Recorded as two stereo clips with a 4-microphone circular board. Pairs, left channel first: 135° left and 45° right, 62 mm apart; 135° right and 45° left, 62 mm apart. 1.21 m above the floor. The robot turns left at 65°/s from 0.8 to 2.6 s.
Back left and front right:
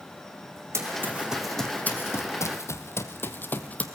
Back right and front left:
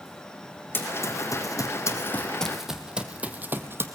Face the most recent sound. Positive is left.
turn(degrees=75)